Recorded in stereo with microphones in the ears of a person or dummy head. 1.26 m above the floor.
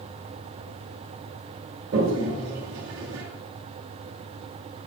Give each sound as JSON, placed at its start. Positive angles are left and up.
{"t": 1.9, "sound": "a toilet flushing", "side_deg": -65, "distance_m": 1.6}